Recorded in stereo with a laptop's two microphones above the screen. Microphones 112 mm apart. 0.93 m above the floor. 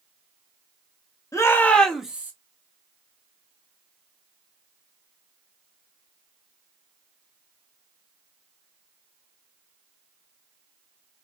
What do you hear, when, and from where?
1.3 s a shout: 30° left (ahead or behind), 0.9 m; by 2.3 s 15° right (ahead or behind), 0.8 m